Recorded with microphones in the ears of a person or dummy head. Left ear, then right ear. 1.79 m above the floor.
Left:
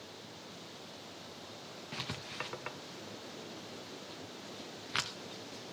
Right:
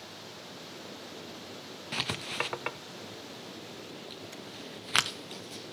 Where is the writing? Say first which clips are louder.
Right 9 dB; 25° right (ahead or behind), 0.6 m.